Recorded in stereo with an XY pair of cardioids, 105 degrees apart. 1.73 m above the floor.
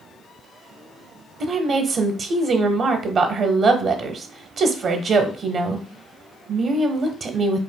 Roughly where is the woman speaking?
Ahead right.